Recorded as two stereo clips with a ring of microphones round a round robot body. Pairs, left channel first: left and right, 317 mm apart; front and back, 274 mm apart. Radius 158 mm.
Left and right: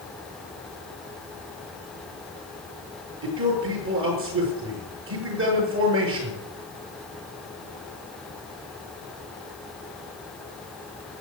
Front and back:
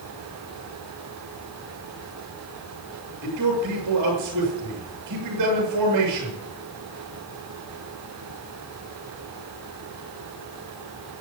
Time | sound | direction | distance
3.2 | a man speaking | 140° right | 7 m